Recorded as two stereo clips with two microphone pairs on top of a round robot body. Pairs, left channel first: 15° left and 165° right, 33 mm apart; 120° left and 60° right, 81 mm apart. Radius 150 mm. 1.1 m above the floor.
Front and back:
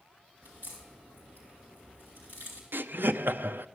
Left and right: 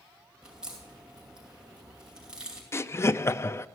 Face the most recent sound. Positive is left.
turn(degrees=180)